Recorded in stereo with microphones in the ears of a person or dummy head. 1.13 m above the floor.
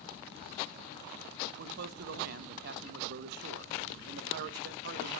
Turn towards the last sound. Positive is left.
turn(degrees=-55)  # may be behind; listen again after turning